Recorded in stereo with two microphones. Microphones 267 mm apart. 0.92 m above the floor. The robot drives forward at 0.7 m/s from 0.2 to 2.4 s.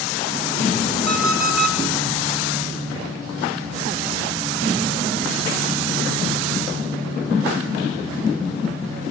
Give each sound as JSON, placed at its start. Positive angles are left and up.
{"t": 1.1, "sound": "an alarm clock", "side_deg": -5, "distance_m": 5.0}